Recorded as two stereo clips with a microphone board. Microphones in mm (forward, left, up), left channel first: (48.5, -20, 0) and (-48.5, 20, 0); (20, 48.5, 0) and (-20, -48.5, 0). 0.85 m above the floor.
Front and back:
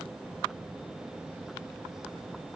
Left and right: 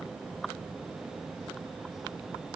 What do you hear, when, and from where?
Only background noise.